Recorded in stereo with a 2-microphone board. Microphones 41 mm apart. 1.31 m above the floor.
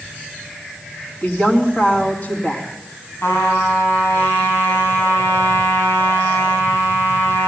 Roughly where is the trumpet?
Left.